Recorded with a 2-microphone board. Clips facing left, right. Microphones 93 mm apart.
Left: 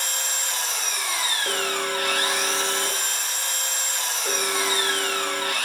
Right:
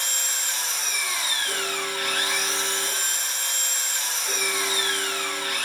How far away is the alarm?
About 0.7 m.